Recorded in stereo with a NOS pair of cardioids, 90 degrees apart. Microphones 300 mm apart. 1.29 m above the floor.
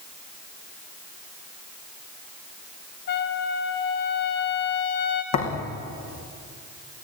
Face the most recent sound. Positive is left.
turn(degrees=70)